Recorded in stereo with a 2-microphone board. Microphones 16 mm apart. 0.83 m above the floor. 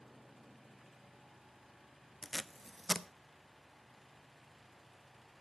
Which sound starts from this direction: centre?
Tape being pulled, at 2.2 s.